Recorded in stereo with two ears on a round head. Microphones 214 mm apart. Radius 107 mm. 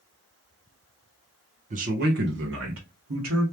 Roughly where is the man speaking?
Right.